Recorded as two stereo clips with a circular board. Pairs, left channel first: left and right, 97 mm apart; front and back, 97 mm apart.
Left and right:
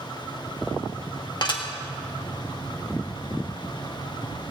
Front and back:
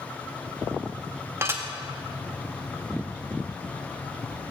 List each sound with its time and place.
1.4 s dishes clattering: 120° left, 1.7 m